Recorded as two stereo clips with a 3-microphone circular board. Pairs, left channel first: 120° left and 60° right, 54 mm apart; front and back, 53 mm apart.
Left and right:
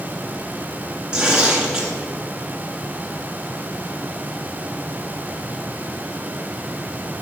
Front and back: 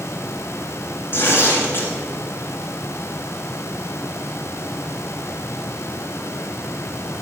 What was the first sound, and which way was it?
Tearing paper, 10° left.